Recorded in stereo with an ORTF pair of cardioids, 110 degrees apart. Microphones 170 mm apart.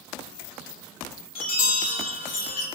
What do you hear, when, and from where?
1.4 s a chime: 60° left, 3 m